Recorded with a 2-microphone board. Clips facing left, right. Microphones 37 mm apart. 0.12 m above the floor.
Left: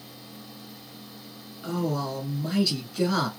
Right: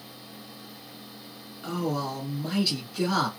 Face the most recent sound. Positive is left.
turn(degrees=-5)  # may be behind; listen again after turning